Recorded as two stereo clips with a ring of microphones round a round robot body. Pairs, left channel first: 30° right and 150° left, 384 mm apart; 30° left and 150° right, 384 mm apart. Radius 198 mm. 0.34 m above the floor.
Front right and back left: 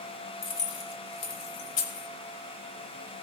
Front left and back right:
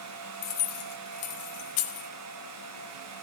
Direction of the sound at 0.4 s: 30° left.